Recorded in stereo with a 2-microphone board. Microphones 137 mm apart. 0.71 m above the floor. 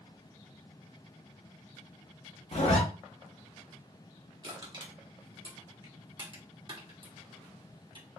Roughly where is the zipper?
Left.